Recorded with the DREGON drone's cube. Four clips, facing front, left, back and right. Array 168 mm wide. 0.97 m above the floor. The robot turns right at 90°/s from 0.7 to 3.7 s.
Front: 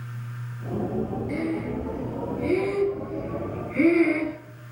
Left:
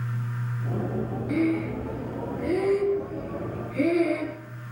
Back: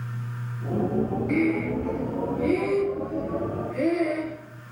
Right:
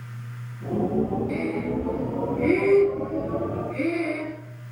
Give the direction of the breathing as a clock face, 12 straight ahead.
7 o'clock.